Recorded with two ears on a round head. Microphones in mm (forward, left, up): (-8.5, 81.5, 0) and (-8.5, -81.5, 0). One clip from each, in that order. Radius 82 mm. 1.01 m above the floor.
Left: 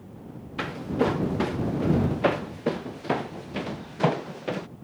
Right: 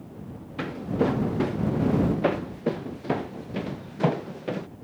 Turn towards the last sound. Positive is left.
turn(degrees=30)  # may be behind; listen again after turning